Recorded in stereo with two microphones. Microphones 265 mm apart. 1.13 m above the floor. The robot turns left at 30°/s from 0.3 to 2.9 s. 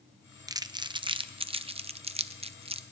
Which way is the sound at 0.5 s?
15° right (ahead or behind).